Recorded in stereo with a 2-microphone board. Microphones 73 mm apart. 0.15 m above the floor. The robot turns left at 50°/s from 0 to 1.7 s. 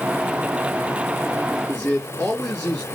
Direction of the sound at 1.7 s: 25° left (ahead or behind).